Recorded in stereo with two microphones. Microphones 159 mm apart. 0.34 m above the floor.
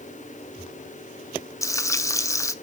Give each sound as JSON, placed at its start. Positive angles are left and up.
{"t": 1.6, "sound": "frying", "side_deg": 20, "distance_m": 0.5}